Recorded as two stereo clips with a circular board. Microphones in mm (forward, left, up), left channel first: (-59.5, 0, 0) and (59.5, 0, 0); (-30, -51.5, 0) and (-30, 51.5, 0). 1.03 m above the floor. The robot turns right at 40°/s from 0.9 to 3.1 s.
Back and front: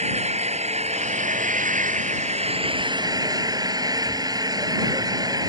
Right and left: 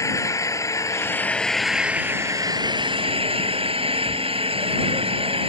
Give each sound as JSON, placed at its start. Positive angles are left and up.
{"t": 0.0, "sound": "an engine running", "azimuth_deg": -30}